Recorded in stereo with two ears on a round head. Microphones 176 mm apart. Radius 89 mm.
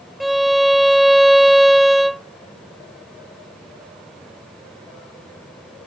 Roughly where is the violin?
Centre.